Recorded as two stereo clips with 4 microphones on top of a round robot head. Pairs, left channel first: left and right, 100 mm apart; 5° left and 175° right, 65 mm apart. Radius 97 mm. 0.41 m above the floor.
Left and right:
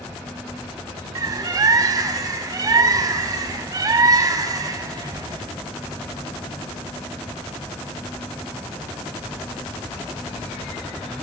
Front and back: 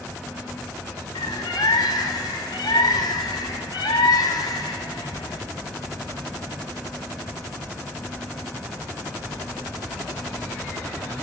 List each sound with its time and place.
1.1 s a bird: 35° right, 0.6 m